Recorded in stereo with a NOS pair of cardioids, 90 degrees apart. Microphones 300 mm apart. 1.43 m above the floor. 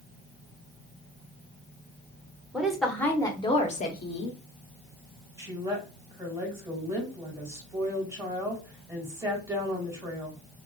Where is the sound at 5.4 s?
10° right, 1.8 m.